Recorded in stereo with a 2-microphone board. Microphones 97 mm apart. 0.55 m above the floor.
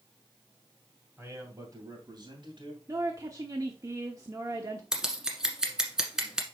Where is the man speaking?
30° right (ahead or behind), 3 m; by 2.8 s 65° right (ahead or behind), 3 m.